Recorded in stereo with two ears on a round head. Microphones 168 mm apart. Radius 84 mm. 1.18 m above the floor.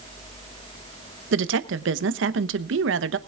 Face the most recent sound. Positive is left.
turn(degrees=-70)  # may be behind; listen again after turning